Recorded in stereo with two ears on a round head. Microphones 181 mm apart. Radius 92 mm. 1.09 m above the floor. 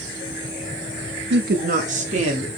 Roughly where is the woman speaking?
Right.